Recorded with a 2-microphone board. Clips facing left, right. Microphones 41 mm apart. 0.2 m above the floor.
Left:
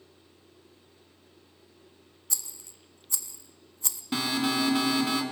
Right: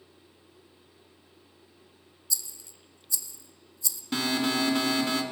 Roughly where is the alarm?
Centre.